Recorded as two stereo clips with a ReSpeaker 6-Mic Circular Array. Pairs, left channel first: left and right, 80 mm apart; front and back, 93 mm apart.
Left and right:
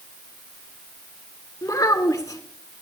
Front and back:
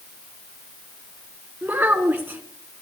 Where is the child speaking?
115° left, 1.6 m.